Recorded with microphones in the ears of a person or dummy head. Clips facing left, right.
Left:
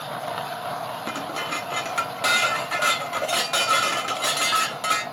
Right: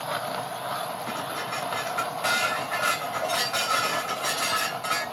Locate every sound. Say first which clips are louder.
1.1 s dishes clattering: left 2 dB; 50° left (ahead or behind), 1.4 m